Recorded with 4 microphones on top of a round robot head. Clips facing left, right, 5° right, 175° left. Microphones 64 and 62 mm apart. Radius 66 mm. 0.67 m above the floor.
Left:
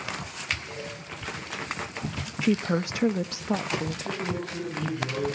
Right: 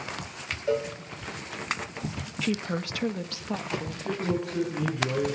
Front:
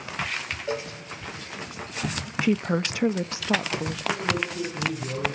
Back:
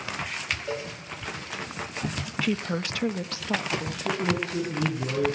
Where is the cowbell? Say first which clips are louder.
Right 11 dB, front 2 dB; 80° right, 2.5 m.